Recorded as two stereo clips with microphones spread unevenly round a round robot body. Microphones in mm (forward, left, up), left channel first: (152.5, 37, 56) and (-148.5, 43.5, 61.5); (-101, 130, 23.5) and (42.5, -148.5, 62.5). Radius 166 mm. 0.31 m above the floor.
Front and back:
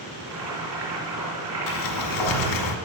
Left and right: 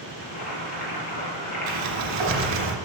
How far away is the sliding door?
About 1.2 m.